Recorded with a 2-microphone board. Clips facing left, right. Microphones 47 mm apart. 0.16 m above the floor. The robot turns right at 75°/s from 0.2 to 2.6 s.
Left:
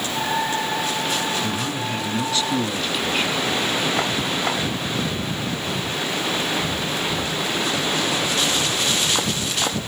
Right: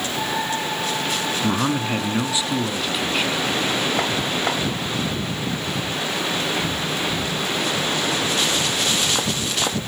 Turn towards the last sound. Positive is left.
turn(degrees=-5)